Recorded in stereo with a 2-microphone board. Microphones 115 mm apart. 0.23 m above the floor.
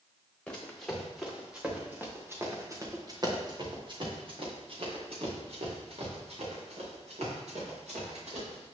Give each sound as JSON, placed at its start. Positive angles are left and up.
{"t": 0.5, "sound": "running footsteps", "side_deg": 10, "distance_m": 1.9}